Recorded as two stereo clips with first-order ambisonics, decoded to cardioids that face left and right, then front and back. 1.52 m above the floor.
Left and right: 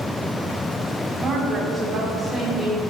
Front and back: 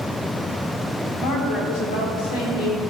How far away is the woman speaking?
About 4.5 m.